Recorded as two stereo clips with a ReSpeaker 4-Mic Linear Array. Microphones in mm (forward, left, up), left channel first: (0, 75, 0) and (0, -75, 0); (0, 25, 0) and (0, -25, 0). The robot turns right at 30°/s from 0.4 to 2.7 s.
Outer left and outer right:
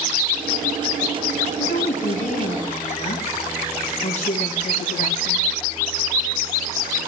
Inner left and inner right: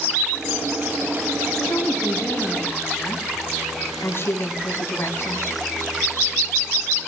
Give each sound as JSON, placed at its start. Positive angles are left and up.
{"t": 1.6, "sound": "a woman speaking", "azimuth_deg": 100, "distance_m": 5.5}